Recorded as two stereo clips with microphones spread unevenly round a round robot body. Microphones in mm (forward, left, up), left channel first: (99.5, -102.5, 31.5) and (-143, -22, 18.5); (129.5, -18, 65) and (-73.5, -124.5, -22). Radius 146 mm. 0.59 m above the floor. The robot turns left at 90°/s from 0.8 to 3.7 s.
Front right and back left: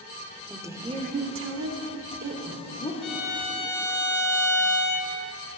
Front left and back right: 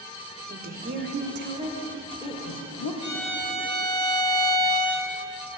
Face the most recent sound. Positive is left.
turn(degrees=-95)